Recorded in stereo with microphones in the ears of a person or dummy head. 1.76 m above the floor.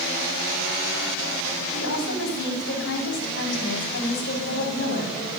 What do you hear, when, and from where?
1.8 s a woman speaking: 75° left (ahead or behind), 3.5 m